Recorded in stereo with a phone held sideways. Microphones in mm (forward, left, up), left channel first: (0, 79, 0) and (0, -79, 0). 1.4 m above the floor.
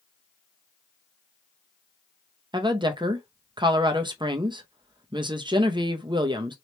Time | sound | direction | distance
2.5 | a woman speaking | 30° right (ahead or behind) | 0.5 m